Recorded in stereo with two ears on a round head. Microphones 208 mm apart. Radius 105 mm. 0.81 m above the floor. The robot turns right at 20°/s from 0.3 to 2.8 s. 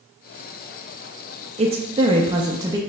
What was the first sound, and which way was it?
A woman speaking, 25° right (ahead or behind).